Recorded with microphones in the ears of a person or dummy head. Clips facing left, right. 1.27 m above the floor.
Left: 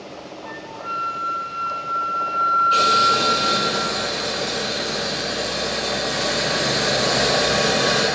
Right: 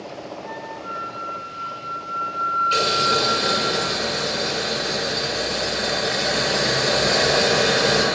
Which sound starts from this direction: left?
A flute, at 0.5 s.